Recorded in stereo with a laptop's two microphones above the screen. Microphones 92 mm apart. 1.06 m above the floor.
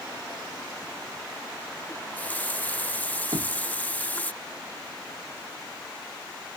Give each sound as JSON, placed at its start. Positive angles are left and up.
{"t": 1.9, "sound": "a running tap", "side_deg": 20}
{"t": 3.3, "sound": "knocking", "side_deg": -65}